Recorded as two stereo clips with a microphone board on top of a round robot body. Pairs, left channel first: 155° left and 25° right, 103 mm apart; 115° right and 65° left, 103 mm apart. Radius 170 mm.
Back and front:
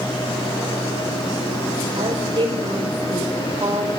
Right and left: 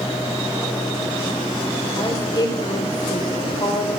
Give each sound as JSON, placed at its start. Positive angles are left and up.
{"t": 2.0, "sound": "a woman speaking", "azimuth_deg": -65, "distance_m": 4.5}